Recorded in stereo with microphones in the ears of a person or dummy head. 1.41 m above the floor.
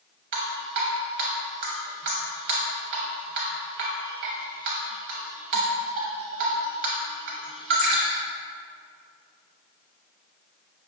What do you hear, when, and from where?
0.3 s dripping: 40° right (ahead or behind), 0.7 m